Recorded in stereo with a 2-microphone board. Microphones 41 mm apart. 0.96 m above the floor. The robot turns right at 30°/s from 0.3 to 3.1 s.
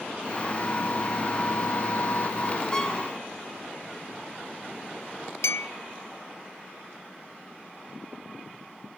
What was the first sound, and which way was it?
A violin, 15° left (ahead or behind).